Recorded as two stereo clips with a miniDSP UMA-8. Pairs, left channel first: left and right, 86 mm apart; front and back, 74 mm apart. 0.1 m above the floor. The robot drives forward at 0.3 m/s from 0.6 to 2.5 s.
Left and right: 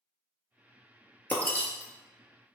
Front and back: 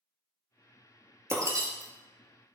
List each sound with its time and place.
1.3 s breaking glass: 150° left, 0.8 m; by 2.5 s 160° left, 1.1 m